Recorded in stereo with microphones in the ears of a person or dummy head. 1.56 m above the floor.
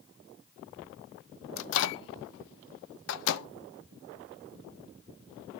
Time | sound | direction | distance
1.6 | a microwave | 75° left (ahead or behind) | 0.6 m